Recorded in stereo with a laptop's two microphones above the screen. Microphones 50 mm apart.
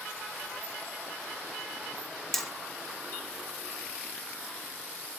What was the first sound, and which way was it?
Hammering, 5° left (ahead or behind).